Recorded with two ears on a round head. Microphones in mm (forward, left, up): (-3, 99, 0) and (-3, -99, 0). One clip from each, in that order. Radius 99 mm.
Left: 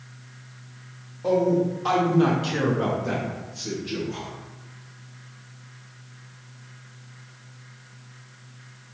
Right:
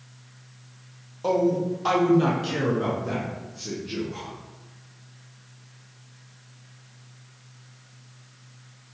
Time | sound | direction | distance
1.2 | a man speaking | 40° right (ahead or behind) | 0.8 m